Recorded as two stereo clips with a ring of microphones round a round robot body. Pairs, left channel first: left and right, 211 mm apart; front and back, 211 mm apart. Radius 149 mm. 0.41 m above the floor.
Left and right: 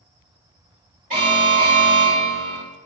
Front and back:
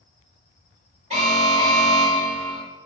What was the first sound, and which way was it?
An alarm, 125° right.